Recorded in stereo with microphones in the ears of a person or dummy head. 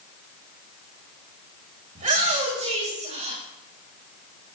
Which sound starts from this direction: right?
A shout, at 1.9 s.